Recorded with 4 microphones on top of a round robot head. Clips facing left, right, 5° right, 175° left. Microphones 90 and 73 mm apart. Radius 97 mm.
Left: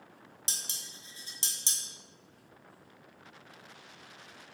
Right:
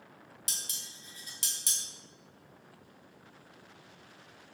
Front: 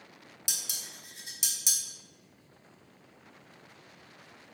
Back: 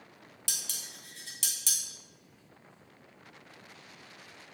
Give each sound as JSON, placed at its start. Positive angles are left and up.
{"t": 0.5, "sound": "dishes clattering", "azimuth_deg": 55, "distance_m": 0.8}